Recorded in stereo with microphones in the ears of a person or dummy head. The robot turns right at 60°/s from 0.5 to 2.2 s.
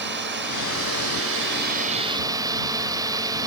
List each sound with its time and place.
0.0 s a drone: 125° right; by 3.5 s 25° right